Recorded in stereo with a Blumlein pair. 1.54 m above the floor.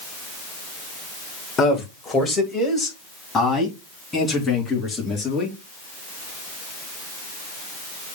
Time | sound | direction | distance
1.6 | a man speaking | 25° left | 1.8 m